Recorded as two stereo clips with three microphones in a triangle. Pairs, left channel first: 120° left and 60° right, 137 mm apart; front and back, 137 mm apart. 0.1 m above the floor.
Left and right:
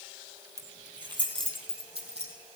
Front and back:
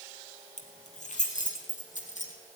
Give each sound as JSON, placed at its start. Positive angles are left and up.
{"t": 0.6, "sound": "keys jangling", "azimuth_deg": 0, "distance_m": 2.0}